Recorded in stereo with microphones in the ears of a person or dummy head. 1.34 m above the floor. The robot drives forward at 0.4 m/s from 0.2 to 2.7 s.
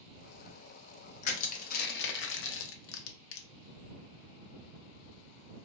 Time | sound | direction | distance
1.2 | crushing | 40° left (ahead or behind) | 0.8 m